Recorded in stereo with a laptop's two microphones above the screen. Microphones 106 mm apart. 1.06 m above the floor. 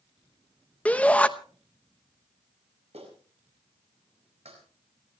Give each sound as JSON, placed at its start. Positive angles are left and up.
{"t": 0.8, "sound": "a shout", "side_deg": 15, "distance_m": 0.8}
{"t": 2.9, "sound": "a clap", "side_deg": -85, "distance_m": 5.0}